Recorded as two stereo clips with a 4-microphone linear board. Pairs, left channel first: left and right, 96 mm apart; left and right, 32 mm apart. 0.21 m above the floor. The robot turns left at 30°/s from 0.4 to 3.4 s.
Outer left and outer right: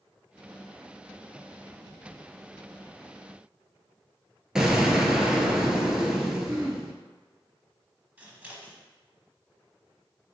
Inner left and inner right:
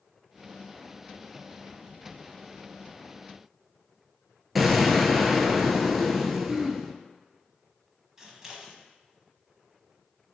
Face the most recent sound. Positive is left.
turn(degrees=-15)  # may be behind; listen again after turning